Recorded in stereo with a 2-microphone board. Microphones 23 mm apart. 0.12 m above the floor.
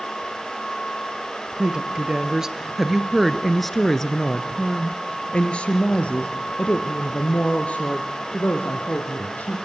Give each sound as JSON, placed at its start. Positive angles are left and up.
{"t": 1.6, "sound": "a woman speaking", "side_deg": -35, "distance_m": 2.0}